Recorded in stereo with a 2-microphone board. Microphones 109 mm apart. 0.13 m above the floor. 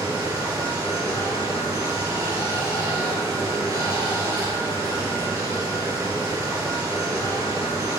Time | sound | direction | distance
0.0 | running water | 25° right (ahead or behind) | 1.8 m